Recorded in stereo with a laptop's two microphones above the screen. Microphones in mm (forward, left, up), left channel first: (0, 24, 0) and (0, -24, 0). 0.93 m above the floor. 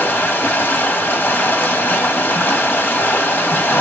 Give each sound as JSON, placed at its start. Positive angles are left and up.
{"t": 0.0, "sound": "running water", "side_deg": 40, "distance_m": 1.5}